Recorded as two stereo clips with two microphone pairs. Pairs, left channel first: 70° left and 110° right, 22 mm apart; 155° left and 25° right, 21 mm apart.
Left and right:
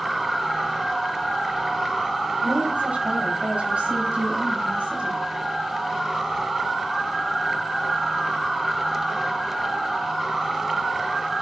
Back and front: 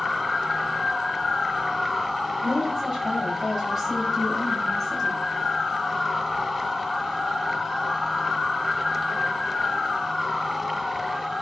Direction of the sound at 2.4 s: 95° right.